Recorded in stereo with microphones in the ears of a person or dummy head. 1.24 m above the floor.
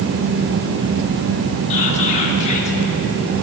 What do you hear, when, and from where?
1.7 s whispering: 40° left (ahead or behind), 0.8 m